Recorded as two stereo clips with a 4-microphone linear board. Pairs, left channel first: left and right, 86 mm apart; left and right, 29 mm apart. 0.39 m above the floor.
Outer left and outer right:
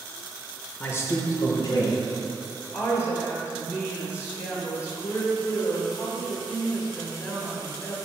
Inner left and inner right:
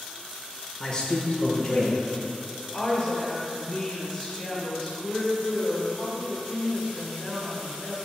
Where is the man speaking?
25° left (ahead or behind), 0.8 m; by 2.0 s 50° left (ahead or behind), 1.6 m.